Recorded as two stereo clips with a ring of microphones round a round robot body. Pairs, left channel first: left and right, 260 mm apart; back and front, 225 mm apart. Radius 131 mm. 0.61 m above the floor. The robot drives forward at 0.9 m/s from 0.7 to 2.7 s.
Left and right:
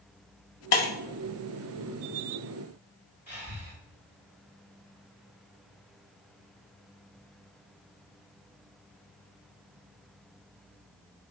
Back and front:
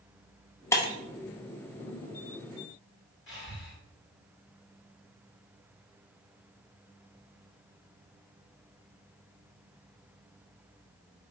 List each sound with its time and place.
0.7 s breaking glass: 105° left, 0.6 m; by 0.9 s 125° left, 0.7 m
3.3 s breathing: 170° right, 1.5 m